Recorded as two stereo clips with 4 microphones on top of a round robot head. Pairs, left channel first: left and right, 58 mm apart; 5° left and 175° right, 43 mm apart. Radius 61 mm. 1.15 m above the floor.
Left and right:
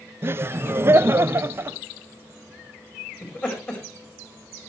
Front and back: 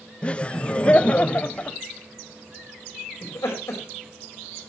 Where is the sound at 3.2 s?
30° left, 4.5 m.